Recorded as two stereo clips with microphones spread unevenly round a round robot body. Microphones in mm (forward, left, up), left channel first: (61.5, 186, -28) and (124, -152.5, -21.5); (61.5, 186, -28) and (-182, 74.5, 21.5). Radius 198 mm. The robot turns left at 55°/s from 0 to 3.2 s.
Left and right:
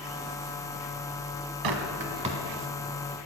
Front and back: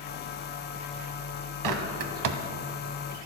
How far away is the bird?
About 0.8 m.